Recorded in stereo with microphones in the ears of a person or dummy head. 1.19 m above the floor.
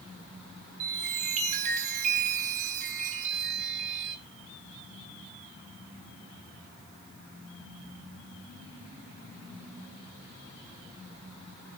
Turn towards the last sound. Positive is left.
turn(degrees=-40)  # may be behind; listen again after turning